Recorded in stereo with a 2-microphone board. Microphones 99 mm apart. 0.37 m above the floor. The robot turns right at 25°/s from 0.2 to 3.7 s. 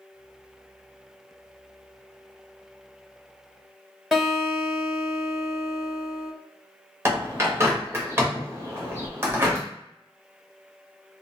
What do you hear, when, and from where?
4.1 s a guitar: centre (ahead or behind), 0.9 m
7.0 s a bird: 25° right (ahead or behind), 0.8 m